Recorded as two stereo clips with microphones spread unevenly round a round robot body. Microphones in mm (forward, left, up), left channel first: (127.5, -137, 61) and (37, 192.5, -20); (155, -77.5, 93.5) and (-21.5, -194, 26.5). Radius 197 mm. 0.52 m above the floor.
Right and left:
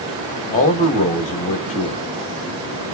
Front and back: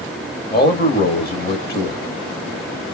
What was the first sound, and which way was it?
A man speaking, 5° right.